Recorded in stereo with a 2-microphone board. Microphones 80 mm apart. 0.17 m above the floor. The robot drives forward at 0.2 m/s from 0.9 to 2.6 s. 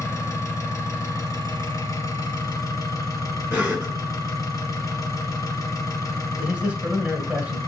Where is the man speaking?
20° right (ahead or behind), 1.0 m.